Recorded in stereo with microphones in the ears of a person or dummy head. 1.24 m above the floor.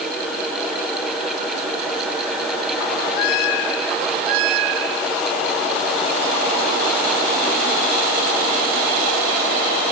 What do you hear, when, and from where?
Only background noise.